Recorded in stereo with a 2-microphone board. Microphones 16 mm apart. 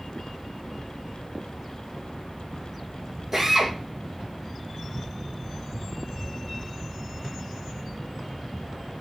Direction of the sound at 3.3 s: 15° right (ahead or behind).